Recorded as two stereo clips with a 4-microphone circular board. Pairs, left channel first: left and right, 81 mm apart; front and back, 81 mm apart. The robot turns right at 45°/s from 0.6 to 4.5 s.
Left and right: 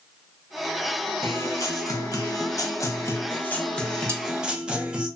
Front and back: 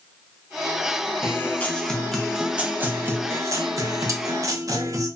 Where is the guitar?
45° left, 0.6 m; by 5.1 s 165° right, 0.6 m.